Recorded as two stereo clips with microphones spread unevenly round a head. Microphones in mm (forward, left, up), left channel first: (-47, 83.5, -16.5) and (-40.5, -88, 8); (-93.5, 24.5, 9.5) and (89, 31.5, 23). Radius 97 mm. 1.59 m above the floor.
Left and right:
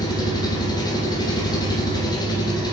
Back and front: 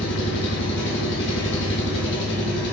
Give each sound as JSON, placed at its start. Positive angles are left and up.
{"t": 0.0, "sound": "an engine running", "azimuth_deg": 160, "distance_m": 1.6}